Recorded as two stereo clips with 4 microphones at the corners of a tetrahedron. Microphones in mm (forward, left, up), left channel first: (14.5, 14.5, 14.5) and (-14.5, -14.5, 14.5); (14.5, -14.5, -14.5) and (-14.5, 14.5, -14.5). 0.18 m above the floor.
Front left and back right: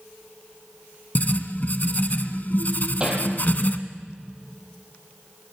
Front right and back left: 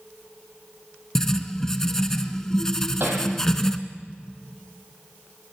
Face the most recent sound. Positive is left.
turn(degrees=160)